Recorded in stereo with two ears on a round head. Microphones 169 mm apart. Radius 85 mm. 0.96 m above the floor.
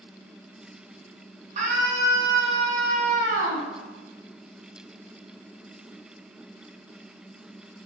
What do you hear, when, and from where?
1.6 s a scream: 40° right (ahead or behind), 7.5 m; by 3.7 s 45° right (ahead or behind), 6.5 m